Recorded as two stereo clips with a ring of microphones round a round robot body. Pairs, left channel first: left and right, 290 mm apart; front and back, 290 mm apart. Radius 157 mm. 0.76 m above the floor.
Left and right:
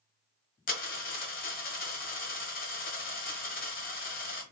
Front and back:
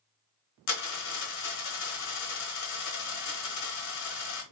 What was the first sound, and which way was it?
A dropped coin, 30° left.